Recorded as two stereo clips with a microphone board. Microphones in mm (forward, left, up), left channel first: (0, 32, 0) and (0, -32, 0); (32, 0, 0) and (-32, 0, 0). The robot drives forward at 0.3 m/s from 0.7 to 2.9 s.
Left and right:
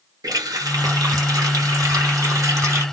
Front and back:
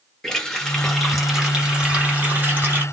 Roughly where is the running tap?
Right.